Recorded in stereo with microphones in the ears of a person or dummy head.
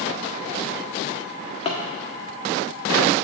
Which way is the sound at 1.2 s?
35° left (ahead or behind).